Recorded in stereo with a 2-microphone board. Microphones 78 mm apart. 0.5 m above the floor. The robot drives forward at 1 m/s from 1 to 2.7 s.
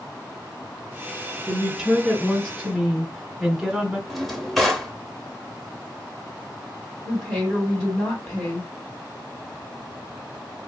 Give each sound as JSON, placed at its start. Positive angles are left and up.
{"t": 1.5, "sound": "a woman speaking", "side_deg": -5, "distance_m": 2.0}
{"t": 4.1, "sound": "a drawer", "side_deg": 0, "distance_m": 0.7}
{"t": 7.0, "sound": "a woman speaking", "side_deg": 15, "distance_m": 2.5}